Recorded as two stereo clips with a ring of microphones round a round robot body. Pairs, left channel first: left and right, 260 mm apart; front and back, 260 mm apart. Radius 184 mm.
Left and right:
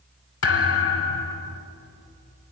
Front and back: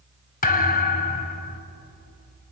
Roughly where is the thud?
Ahead left.